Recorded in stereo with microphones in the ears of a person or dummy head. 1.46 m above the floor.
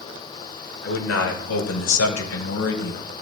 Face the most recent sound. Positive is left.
turn(degrees=75)  # may be behind; listen again after turning